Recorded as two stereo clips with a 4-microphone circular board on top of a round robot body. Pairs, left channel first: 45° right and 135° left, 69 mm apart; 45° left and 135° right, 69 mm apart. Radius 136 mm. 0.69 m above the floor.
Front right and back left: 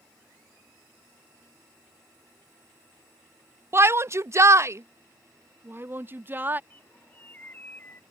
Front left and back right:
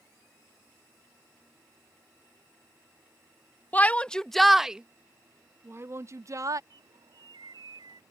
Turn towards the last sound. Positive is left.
turn(degrees=-110)